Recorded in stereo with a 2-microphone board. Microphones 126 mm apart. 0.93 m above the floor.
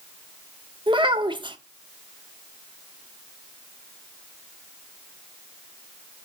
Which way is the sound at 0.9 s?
40° right (ahead or behind).